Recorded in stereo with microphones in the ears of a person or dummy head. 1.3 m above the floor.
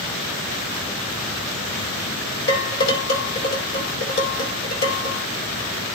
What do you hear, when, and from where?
2.5 s dishes clattering: 55° left (ahead or behind), 4 m